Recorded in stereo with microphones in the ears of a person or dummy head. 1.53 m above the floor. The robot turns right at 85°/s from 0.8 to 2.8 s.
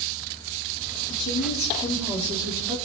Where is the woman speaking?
100° left, 3.5 m; by 2.8 s 120° right, 3.5 m.